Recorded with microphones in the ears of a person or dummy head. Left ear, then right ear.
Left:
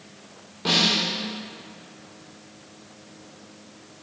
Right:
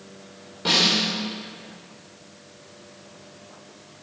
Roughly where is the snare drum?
Centre.